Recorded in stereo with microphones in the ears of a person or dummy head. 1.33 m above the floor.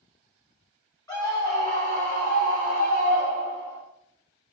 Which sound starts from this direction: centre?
A scream, at 1.1 s.